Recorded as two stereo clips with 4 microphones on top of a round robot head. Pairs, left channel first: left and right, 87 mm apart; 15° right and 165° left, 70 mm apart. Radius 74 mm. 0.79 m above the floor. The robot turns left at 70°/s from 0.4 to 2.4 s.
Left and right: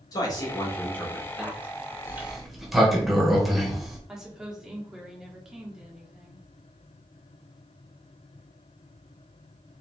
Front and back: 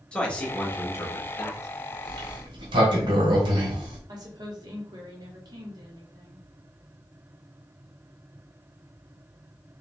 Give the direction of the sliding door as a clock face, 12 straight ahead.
5 o'clock.